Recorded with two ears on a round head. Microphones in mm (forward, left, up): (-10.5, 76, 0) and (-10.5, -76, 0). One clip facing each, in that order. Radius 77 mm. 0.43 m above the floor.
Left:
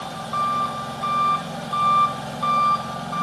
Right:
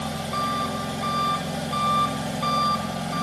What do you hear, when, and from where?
0.0 s an engine running: 20° right (ahead or behind), 0.8 m